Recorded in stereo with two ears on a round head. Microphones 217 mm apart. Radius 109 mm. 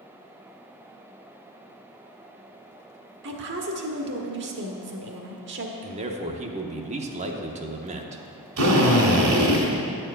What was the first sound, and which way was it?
A woman speaking, 50° right (ahead or behind).